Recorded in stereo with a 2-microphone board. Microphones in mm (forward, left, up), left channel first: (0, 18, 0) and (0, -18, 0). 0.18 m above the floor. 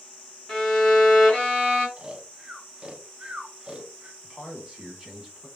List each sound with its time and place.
0.5 s a violin: 10° left (ahead or behind), 1.8 m
2.0 s snoring: 30° right (ahead or behind), 0.5 m
4.2 s a man speaking: 20° right (ahead or behind), 1.1 m